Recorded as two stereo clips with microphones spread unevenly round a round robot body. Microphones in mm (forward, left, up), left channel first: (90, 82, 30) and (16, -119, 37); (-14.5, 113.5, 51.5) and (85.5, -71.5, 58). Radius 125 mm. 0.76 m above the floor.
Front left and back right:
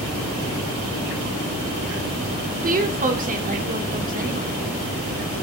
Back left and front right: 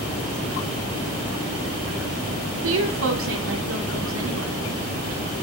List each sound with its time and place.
2.6 s a woman speaking: 60° right, 2.5 m